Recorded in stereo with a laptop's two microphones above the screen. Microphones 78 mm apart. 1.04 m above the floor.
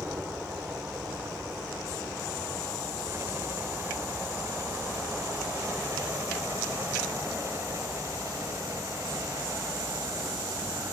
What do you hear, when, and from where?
0.0 s a helicopter: 25° right (ahead or behind); by 10.9 s 40° right (ahead or behind)